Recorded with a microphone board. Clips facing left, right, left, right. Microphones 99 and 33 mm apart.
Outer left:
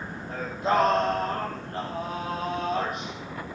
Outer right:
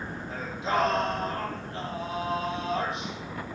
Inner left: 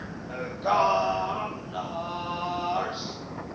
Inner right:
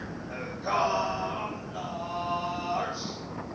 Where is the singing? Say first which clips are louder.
Outer left 4 dB, inner left 5 dB; 50° left (ahead or behind), 5.5 m.